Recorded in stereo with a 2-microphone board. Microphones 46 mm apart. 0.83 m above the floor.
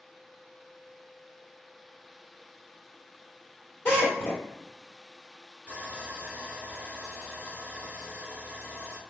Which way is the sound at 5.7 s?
35° right (ahead or behind).